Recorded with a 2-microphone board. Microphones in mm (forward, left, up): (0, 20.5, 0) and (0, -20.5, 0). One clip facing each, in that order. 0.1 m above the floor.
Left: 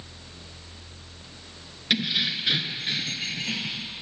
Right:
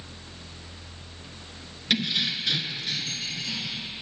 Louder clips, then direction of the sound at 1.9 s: Left 1 dB; 5° left (ahead or behind).